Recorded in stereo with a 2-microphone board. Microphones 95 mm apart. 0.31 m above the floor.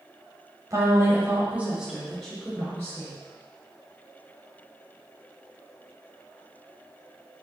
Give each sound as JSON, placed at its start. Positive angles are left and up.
{"t": 0.7, "sound": "a woman speaking", "side_deg": -35, "distance_m": 1.1}